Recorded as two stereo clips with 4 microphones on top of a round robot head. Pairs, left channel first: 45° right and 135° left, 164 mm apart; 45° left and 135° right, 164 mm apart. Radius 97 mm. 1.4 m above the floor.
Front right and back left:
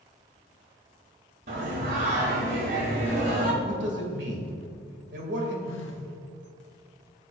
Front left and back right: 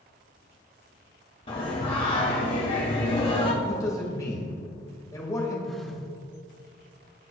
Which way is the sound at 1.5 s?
100° left.